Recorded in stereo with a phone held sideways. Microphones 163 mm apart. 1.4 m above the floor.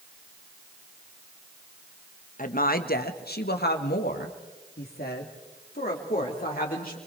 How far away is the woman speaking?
About 1.3 m.